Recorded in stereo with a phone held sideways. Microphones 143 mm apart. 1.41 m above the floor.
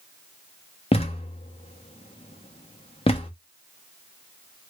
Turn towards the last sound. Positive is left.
turn(degrees=40)  # may be behind; listen again after turning